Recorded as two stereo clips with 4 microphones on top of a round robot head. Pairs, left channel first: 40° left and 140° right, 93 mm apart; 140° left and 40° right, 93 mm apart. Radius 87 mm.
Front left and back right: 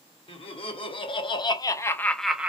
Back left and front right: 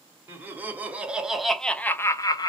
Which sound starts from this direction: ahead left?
Laughter, at 0.3 s.